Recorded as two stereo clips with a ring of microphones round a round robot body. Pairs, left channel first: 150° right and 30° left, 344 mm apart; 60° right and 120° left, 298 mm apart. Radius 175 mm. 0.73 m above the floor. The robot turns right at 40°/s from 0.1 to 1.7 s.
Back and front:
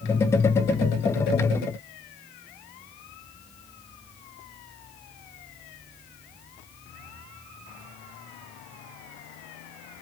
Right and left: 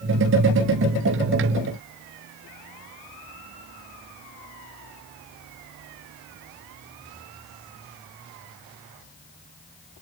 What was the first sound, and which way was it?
Only background noise.